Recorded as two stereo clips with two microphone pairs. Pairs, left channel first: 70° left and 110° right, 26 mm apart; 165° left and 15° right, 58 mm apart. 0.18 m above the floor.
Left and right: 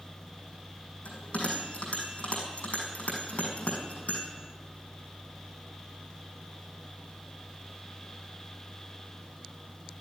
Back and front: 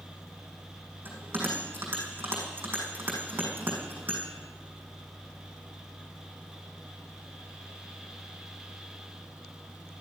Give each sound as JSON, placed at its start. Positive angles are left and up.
{"t": 1.1, "sound": "a bell", "azimuth_deg": 40, "distance_m": 6.0}